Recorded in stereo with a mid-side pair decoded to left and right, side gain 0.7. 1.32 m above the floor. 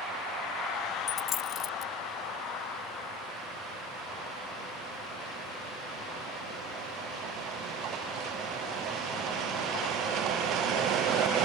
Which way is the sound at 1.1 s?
40° left.